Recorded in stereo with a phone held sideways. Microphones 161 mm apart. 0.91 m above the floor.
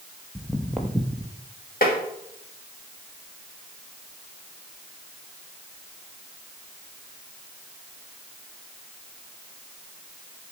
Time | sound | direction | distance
0.3 | footsteps | 5° left (ahead or behind) | 1.1 m
1.8 | tapping | 65° left (ahead or behind) | 2.0 m